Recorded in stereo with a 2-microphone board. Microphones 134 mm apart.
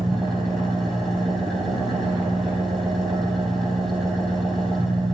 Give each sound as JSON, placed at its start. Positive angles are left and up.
{"t": 0.0, "sound": "an engine running", "side_deg": 0, "distance_m": 2.5}